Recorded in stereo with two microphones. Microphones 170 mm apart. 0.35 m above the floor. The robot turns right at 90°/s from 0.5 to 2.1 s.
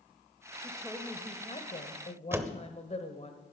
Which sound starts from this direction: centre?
A door slam, at 2.3 s.